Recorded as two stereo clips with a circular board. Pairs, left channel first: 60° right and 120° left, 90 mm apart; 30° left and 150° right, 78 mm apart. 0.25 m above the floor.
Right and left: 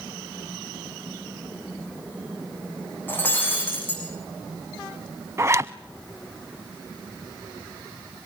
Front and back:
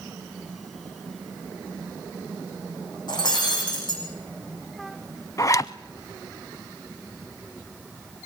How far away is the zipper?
About 0.5 m.